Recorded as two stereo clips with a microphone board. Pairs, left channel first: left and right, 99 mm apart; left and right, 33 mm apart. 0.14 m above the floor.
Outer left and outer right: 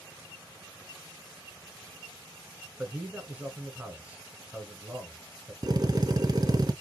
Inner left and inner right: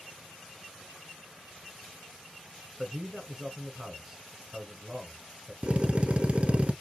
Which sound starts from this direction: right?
A drill, at 5.6 s.